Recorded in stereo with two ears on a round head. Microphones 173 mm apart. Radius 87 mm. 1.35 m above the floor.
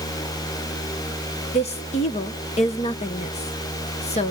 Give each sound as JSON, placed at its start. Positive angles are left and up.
{"t": 1.5, "sound": "a woman speaking", "side_deg": 35, "distance_m": 1.2}